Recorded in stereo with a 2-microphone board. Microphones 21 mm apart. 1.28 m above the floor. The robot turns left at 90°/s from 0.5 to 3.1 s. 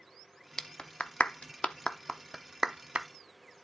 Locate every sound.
0.6 s a clap: 20° left (ahead or behind), 0.7 m; by 3.1 s 60° right (ahead or behind), 0.7 m